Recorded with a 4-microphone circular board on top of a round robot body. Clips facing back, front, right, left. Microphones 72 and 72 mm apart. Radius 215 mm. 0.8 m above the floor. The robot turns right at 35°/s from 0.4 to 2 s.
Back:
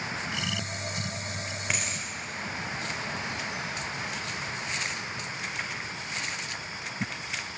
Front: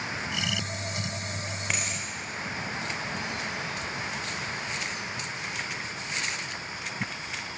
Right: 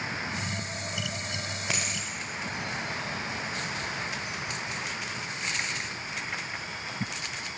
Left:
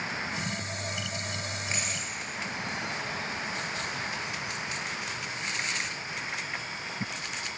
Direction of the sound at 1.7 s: 90° right.